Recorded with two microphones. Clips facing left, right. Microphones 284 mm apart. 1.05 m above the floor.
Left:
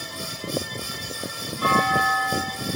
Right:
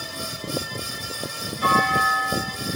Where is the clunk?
80° left, 1.8 m.